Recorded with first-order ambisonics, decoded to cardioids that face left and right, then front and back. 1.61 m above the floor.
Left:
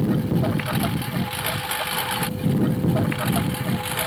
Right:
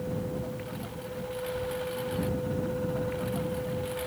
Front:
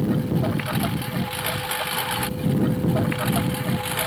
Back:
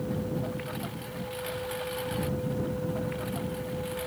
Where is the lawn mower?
55° left; by 4.1 s 45° left.